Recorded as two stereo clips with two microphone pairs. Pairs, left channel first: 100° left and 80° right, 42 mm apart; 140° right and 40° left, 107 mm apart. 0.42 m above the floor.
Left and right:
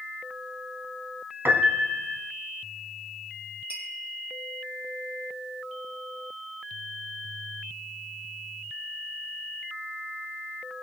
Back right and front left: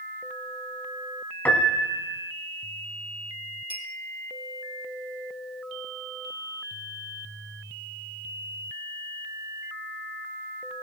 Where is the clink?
125° right, 3 m.